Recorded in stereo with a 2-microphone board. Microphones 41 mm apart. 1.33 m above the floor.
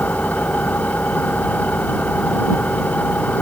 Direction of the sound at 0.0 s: 40° left (ahead or behind).